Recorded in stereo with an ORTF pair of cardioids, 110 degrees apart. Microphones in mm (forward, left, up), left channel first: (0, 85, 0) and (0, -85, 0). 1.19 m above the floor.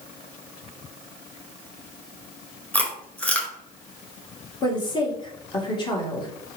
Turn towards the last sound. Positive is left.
turn(degrees=30)